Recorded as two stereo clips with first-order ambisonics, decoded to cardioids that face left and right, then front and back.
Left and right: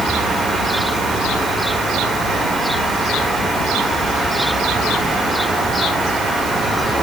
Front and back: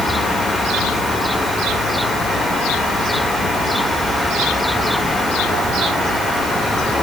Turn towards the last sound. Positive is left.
No sound to turn to.